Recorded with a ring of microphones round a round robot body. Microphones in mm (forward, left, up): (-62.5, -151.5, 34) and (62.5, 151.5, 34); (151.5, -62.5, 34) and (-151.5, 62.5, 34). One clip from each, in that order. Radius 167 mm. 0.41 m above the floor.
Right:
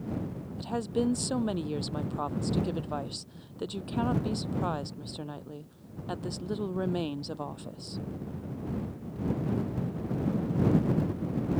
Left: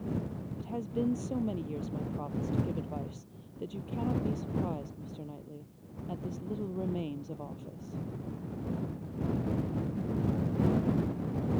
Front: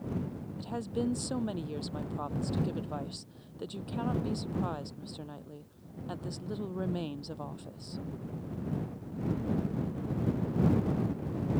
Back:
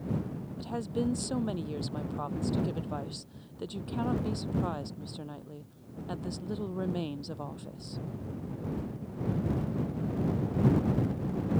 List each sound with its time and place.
0.6 s a woman speaking: 110° right